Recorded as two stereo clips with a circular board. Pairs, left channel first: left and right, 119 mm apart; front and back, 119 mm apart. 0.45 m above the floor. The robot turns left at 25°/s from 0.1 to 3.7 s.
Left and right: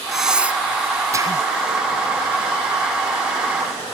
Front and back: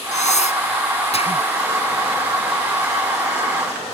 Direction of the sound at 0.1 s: Straight ahead.